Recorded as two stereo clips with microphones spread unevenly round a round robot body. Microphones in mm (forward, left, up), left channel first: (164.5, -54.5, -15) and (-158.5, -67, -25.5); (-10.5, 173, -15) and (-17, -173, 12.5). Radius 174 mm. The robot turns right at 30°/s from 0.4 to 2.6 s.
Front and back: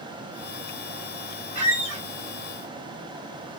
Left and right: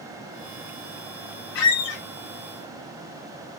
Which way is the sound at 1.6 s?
110° left.